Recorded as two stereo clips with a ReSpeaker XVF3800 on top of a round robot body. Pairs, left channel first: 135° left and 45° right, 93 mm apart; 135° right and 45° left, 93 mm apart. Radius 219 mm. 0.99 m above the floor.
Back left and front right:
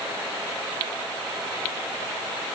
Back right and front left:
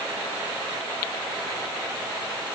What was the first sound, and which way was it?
Only background noise.